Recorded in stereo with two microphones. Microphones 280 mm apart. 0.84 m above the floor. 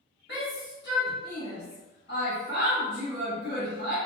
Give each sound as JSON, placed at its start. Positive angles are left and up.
{"t": 0.3, "sound": "a shout", "side_deg": 40, "distance_m": 1.1}